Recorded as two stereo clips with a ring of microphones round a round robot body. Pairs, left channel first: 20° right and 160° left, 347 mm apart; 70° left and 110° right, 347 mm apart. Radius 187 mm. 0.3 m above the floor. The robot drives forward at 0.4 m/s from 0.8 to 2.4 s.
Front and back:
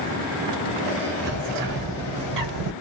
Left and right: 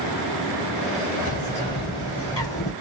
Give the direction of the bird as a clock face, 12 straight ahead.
8 o'clock.